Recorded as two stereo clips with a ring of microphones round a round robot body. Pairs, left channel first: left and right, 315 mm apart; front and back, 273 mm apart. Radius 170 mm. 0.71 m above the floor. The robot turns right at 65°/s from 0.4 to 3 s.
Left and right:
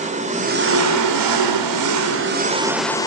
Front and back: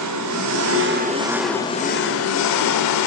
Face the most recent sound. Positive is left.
turn(degrees=10)